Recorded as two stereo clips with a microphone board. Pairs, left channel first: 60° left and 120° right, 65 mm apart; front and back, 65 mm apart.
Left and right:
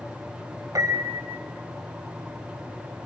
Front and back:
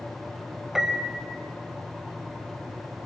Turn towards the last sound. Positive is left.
turn(degrees=-95)